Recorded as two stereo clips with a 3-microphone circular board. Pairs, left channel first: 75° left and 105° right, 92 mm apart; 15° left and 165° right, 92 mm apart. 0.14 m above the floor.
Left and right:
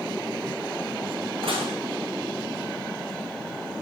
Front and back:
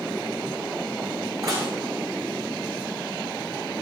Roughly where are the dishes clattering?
Behind right.